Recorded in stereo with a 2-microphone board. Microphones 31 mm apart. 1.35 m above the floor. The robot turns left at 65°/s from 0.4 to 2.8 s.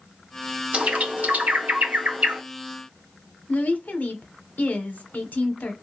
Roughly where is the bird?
Right.